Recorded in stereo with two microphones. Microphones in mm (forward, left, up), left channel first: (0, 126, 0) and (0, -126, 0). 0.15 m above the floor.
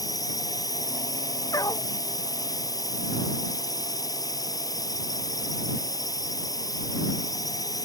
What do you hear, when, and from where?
0.0 s a drone: 15° left (ahead or behind)
1.5 s a dog barking: 15° left (ahead or behind)